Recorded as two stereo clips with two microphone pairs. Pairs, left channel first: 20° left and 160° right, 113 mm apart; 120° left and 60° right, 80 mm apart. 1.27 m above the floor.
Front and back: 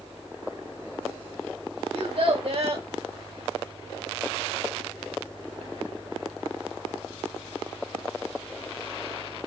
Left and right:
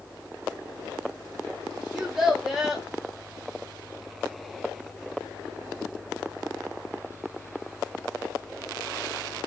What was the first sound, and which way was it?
A child speaking, 145° right.